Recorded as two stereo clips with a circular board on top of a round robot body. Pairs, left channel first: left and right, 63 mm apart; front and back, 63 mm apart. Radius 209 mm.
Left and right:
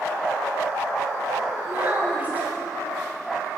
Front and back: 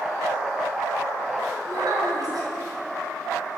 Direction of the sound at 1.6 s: 155° right.